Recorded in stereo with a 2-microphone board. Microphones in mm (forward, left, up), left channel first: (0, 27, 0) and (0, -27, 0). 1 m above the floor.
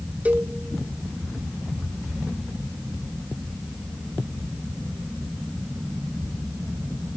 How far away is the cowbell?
About 1.2 m.